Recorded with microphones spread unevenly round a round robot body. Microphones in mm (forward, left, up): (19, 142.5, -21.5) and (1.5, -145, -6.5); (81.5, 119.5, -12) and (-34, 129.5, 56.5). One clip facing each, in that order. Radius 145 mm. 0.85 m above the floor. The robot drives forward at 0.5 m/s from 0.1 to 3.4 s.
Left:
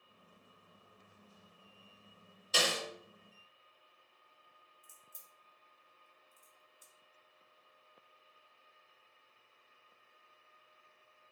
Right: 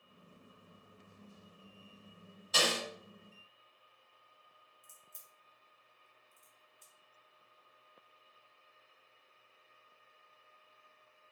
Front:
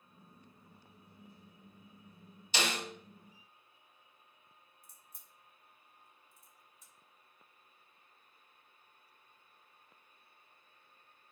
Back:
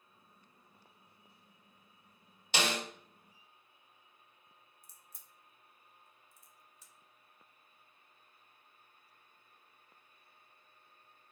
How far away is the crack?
About 0.6 m.